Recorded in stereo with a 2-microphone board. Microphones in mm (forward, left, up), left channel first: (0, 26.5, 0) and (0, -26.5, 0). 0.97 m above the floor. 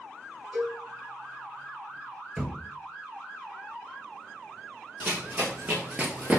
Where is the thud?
10° right (ahead or behind), 1.0 m.